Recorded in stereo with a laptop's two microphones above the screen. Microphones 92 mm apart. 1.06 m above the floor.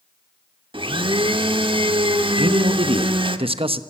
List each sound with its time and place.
0.7 s a blender: 65° right (ahead or behind), 1.2 m
2.4 s a man speaking: 80° right, 1.0 m